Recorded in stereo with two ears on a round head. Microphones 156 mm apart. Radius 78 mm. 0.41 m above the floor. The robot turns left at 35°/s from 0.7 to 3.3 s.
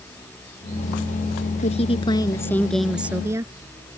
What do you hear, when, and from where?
1.6 s a woman speaking: 45° left; by 3.5 s 15° right